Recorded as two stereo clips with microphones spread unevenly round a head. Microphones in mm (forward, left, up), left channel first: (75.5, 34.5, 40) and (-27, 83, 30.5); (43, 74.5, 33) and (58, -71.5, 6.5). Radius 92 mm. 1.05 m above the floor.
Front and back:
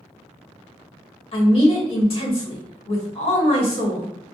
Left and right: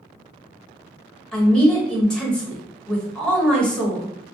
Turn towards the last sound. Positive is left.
turn(degrees=10)